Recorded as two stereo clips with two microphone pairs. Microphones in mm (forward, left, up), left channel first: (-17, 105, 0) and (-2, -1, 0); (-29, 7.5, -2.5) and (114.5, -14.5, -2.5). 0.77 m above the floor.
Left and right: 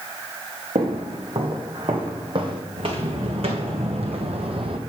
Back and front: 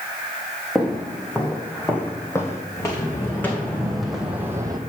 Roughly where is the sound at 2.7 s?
Behind right.